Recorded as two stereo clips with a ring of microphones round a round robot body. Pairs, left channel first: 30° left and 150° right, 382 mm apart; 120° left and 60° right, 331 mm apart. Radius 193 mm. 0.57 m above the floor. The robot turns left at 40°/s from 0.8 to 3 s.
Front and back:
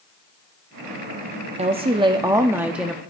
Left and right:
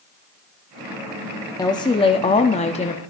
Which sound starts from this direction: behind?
A woman speaking, at 1.6 s.